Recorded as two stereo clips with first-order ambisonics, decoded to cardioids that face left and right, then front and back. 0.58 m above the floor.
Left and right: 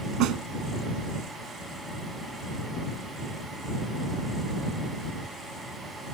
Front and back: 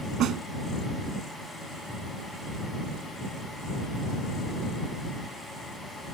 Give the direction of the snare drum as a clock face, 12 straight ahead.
4 o'clock.